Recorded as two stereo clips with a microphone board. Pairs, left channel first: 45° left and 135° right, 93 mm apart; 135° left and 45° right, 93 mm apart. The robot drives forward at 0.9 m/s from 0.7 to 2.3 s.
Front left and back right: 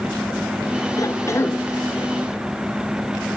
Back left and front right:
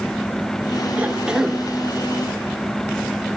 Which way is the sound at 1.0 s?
20° left.